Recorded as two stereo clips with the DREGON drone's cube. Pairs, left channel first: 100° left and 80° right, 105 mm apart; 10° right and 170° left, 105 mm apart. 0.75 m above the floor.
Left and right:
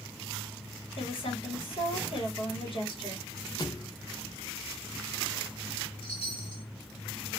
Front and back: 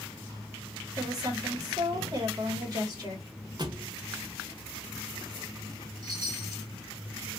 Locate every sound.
1.0 s a woman speaking: 120° left, 1.7 m
3.6 s a thud: 140° left, 0.6 m
6.0 s a chime: 125° left, 1.7 m